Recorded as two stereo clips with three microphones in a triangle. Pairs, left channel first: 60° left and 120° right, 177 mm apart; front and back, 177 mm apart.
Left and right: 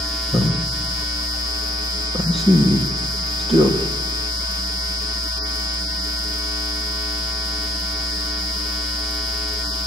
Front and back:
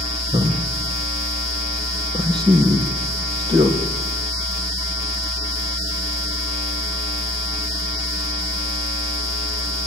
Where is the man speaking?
115° left, 5 m.